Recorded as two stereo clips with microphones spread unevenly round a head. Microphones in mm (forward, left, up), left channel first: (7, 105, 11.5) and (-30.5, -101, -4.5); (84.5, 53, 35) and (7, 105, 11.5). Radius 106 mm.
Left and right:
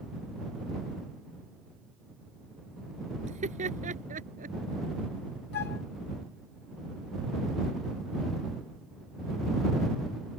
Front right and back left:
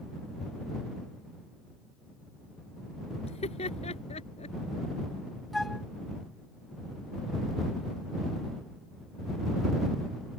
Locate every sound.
3.2 s laughter: 40° right; by 4.6 s 45° right
5.5 s a flute: 45° left